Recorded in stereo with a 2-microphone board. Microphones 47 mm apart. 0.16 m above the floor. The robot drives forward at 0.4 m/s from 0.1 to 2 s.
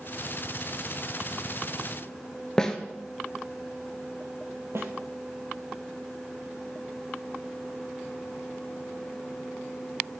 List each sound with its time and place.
2.6 s a snare drum: 15° left (ahead or behind), 0.9 m
4.8 s a snare drum: 60° right (ahead or behind), 1.0 m